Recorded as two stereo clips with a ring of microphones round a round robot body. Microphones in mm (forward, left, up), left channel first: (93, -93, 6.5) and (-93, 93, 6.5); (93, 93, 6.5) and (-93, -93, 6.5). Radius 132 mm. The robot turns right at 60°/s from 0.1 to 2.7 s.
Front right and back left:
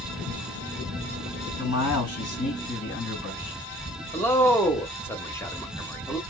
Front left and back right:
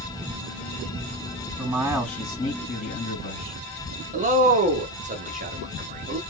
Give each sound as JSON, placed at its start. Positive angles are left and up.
{"t": 1.6, "sound": "a man speaking", "azimuth_deg": -70, "distance_m": 2.5}
{"t": 4.1, "sound": "a man speaking", "azimuth_deg": -120, "distance_m": 0.9}